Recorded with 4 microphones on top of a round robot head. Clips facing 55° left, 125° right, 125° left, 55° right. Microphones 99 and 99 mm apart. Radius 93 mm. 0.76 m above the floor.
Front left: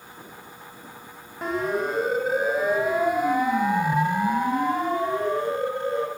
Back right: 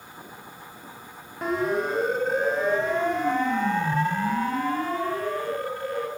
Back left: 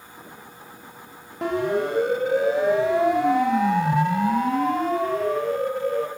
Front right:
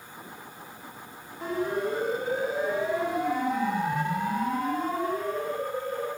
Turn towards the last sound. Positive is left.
turn(degrees=120)